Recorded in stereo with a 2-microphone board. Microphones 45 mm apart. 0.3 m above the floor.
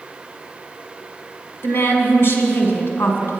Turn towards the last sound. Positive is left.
turn(degrees=65)  # may be behind; listen again after turning